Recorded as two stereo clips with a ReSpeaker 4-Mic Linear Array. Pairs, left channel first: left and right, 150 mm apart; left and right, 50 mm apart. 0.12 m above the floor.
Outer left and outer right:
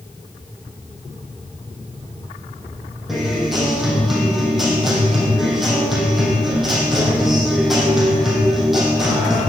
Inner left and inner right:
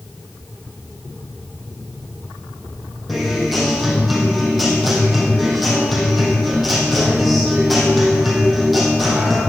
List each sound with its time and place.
3.1 s a guitar: centre (ahead or behind), 4 m